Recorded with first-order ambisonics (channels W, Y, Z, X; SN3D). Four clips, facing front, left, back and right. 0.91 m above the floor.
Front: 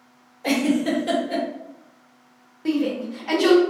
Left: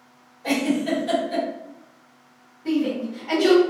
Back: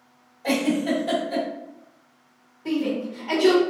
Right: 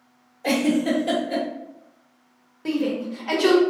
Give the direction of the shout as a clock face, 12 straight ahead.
1 o'clock.